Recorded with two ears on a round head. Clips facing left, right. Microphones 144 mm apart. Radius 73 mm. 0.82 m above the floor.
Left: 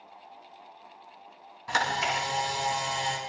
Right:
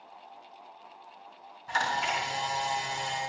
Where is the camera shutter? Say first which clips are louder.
Left 1 dB; 70° left (ahead or behind), 7 m.